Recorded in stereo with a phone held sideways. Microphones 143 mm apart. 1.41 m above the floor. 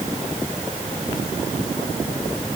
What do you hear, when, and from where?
Only background noise.